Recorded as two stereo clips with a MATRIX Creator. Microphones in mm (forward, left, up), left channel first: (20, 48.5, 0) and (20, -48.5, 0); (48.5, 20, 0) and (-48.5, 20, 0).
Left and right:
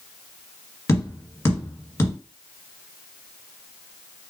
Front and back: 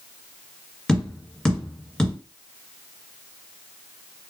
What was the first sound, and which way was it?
Tapping, 75° left.